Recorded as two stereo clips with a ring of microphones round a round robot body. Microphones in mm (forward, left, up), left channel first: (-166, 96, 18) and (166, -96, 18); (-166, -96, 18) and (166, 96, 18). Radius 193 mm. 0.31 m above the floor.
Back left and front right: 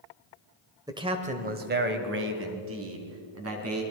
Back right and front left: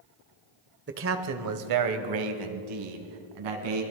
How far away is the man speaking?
About 1.5 m.